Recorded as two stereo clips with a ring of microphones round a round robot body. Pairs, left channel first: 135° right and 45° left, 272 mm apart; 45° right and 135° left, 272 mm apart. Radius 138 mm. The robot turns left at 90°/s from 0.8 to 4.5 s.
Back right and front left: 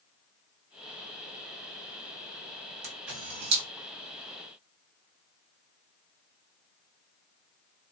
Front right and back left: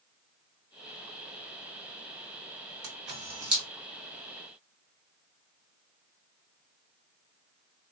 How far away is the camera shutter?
About 2.0 m.